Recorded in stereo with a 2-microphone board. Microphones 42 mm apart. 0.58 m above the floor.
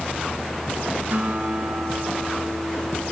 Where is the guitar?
45° right (ahead or behind), 5 m.